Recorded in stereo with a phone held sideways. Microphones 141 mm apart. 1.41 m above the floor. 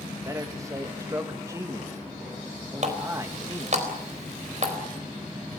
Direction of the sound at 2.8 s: 55° right (ahead or behind).